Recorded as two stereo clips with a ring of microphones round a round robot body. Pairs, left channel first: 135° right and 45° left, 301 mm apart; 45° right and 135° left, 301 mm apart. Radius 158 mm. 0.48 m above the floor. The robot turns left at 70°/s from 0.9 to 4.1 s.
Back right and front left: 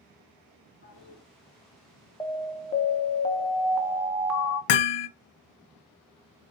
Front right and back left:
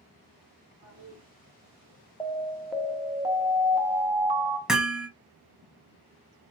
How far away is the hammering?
About 0.7 m.